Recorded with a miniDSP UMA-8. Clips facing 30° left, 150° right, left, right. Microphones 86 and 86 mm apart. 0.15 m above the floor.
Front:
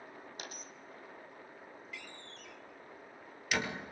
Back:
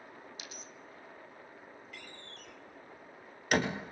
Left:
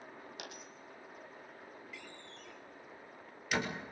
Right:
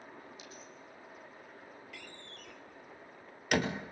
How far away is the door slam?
About 2 m.